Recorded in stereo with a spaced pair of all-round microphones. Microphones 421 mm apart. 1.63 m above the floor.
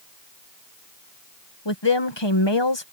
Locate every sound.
1.6 s a woman speaking: 80° left